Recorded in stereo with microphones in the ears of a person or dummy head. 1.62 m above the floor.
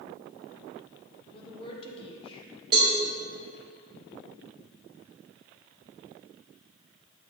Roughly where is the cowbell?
Right.